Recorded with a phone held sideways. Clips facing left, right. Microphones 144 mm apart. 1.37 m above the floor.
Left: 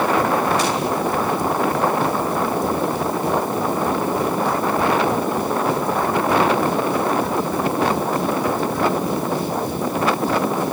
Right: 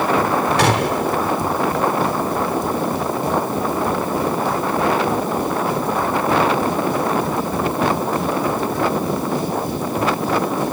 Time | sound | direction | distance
0.6 | a gunshot | 85° right | ?